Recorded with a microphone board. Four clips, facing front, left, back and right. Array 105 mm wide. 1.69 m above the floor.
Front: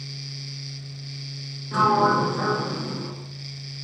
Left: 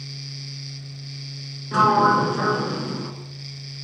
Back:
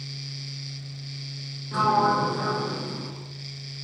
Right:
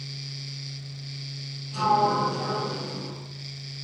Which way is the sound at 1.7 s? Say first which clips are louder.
Left 5 dB, front 2 dB; 75° left.